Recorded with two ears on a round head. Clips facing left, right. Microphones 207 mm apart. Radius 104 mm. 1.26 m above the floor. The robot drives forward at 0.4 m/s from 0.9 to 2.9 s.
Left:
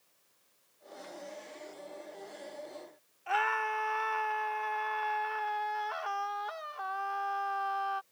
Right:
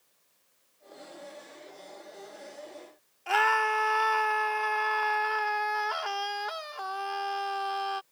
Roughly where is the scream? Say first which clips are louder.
Right 5 dB; right.